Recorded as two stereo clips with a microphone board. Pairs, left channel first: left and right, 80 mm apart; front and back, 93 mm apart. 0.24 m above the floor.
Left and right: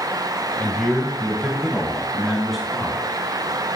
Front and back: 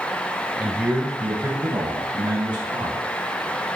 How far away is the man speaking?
About 1.3 m.